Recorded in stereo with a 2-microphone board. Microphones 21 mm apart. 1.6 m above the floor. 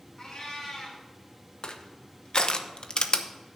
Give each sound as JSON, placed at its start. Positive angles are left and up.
{"t": 0.2, "sound": "a cat meowing", "side_deg": 30, "distance_m": 3.0}
{"t": 1.6, "sound": "crushing", "side_deg": 45, "distance_m": 0.8}